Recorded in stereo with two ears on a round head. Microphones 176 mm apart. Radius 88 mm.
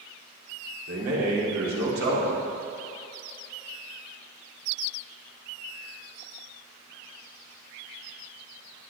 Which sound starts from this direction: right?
A man speaking, at 0.9 s.